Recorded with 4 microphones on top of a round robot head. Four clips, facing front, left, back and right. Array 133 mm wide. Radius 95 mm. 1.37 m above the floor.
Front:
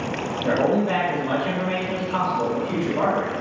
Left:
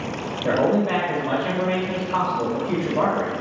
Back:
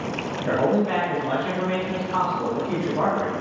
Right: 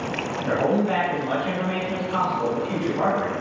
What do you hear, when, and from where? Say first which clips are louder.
0.4 s a man speaking: left 2 dB, front 1 dB; 70° left, 1.8 m